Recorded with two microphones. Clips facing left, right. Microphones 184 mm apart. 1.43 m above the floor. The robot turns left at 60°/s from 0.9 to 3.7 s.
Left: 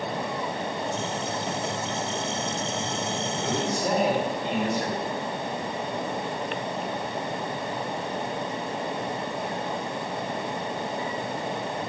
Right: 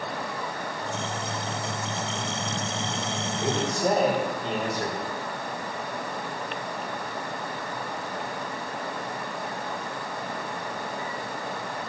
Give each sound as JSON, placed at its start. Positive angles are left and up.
{"t": 3.4, "sound": "a man speaking", "side_deg": -20, "distance_m": 5.0}